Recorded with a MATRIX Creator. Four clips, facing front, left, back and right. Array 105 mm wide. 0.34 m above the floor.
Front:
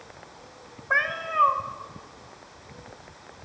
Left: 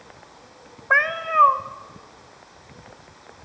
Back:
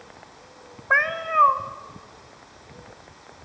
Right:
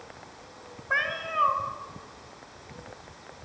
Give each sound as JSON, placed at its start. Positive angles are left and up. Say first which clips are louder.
{"t": 0.9, "sound": "a cat meowing", "louder": "left 9 dB, back 4 dB", "azimuth_deg": 115, "distance_m": 0.6}